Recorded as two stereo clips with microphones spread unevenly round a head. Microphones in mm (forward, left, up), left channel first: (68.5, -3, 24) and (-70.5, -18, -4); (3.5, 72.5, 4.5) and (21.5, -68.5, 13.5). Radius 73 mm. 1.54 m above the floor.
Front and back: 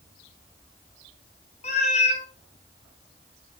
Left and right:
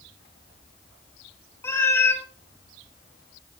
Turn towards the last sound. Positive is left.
turn(degrees=25)